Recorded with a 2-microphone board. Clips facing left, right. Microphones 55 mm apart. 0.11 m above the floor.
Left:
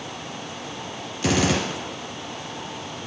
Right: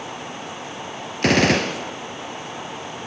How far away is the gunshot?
About 1.5 m.